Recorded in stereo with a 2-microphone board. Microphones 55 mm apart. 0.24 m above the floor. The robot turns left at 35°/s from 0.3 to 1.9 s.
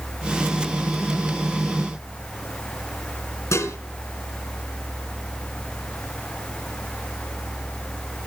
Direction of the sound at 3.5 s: 65° left (ahead or behind).